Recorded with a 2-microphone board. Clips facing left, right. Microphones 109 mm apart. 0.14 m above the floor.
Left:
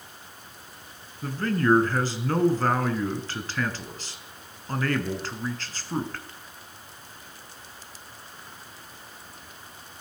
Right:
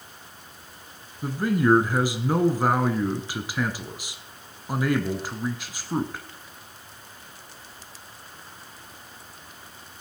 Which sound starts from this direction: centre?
A man speaking, at 1.2 s.